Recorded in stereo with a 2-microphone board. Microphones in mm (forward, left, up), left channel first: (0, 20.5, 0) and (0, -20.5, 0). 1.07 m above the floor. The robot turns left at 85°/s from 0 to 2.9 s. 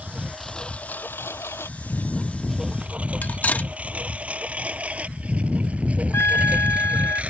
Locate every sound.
0.0 s a lawn mower: 35° right (ahead or behind); by 7.3 s 30° right (ahead or behind)
3.2 s cutlery clinking: 40° left (ahead or behind)
6.1 s a trumpet: 85° left